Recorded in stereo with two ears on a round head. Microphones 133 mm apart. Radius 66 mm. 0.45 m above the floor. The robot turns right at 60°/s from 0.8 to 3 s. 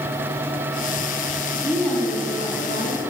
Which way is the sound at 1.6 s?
Straight ahead.